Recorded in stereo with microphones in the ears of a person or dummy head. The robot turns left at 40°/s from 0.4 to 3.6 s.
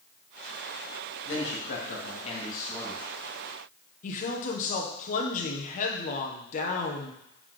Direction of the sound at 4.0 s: 40° left (ahead or behind).